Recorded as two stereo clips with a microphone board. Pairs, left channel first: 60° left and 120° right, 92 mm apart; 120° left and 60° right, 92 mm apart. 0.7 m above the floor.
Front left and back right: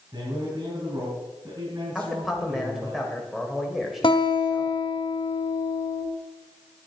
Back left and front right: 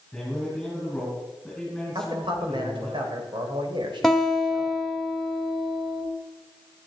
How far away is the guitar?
About 1.9 m.